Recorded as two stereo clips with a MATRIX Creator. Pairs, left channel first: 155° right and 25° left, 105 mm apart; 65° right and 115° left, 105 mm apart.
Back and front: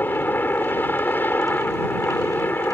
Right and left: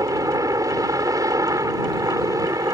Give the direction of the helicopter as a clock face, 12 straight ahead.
7 o'clock.